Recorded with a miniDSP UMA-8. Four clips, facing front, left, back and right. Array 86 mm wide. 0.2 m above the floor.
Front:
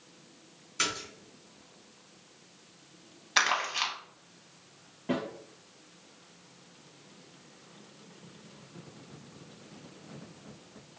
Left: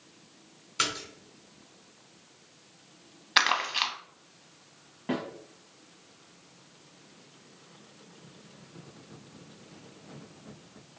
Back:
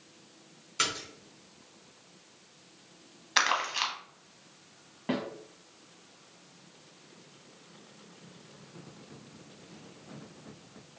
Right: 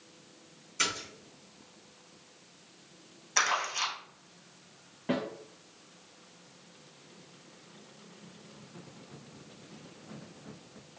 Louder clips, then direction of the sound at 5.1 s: Even, front 1 dB; 170° left.